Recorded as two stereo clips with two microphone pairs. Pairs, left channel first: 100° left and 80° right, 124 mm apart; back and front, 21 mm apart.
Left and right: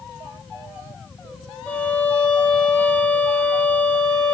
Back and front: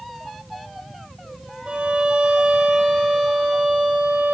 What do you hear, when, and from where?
1.7 s a violin: 20° left, 4.5 m